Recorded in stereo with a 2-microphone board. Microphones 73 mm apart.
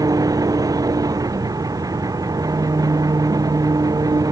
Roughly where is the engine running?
Right.